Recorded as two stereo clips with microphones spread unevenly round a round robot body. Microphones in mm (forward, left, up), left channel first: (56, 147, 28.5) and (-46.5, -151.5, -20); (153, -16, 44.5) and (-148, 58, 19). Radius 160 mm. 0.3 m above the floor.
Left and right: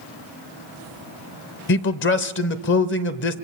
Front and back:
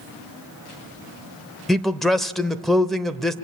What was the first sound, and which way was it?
A man speaking, 85° left.